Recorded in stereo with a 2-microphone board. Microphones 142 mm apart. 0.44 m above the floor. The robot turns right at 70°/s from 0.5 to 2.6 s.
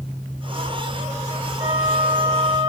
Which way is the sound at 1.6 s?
30° right.